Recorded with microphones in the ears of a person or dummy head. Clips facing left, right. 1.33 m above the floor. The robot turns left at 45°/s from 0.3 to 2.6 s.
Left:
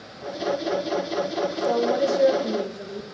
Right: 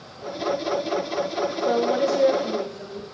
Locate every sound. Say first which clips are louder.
1.6 s a woman speaking: even; 160° right, 1.2 m; by 3.0 s 155° left, 1.2 m